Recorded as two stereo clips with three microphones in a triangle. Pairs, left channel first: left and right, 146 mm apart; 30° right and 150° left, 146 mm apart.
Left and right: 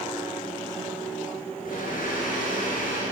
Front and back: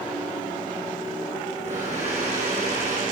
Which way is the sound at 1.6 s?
110° left.